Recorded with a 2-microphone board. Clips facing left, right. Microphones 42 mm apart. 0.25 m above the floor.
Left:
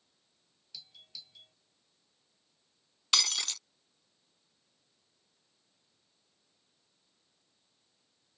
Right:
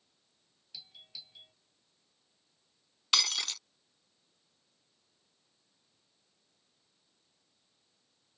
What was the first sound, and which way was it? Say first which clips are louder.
A doorbell: right 1 dB; 15° right (ahead or behind).